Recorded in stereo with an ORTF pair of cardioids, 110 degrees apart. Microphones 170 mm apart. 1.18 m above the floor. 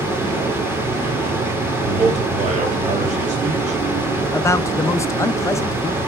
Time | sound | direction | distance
0.0 | a fan | 15° right | 2.5 m
1.8 | a man speaking | 45° right | 3.5 m
4.3 | a man speaking | 15° left | 0.7 m